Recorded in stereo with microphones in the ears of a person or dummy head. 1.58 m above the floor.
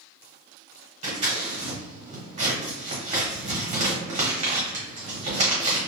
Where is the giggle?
I don't hear a giggle.